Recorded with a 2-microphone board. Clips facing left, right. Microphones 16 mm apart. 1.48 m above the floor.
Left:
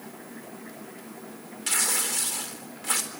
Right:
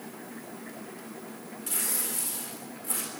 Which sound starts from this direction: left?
Tearing paper, at 1.7 s.